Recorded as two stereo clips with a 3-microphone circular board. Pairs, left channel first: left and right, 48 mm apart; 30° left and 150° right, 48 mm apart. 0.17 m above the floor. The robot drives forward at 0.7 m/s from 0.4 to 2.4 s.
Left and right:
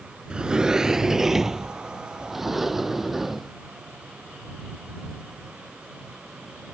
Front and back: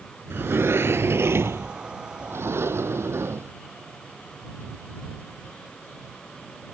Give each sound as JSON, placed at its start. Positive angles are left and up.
{"t": 0.3, "sound": "a sliding door", "azimuth_deg": -160}